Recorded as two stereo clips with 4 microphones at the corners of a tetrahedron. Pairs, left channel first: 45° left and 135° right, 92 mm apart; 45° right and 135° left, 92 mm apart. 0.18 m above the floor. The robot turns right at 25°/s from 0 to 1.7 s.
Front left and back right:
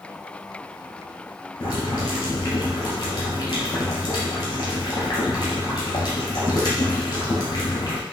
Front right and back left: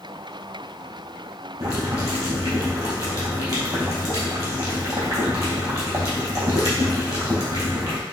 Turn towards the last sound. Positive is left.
turn(degrees=90)